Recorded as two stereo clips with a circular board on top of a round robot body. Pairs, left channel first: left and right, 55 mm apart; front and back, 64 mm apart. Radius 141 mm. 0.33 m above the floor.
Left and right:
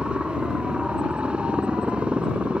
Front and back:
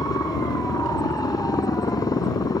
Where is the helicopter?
20° right.